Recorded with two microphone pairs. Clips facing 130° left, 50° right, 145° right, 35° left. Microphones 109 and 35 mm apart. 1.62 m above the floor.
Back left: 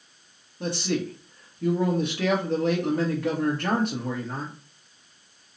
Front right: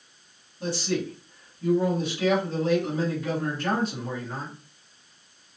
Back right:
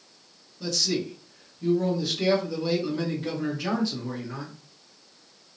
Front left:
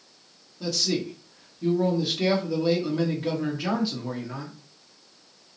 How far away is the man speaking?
About 1.0 m.